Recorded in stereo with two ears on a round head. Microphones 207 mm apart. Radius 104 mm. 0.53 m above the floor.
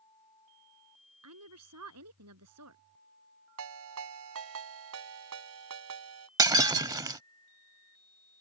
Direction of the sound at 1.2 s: 80° right.